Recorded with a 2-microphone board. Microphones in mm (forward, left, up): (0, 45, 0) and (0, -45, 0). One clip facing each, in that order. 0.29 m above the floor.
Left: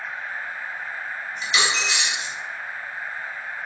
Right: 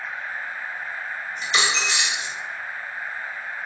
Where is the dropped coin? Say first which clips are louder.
Even; 35° right (ahead or behind), 0.6 m.